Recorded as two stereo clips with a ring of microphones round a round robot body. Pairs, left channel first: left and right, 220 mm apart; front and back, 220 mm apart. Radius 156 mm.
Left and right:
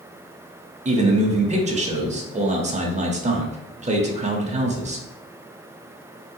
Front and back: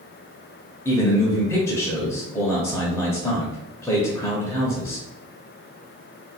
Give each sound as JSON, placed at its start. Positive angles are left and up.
{"t": 0.8, "sound": "a man speaking", "azimuth_deg": -70, "distance_m": 0.9}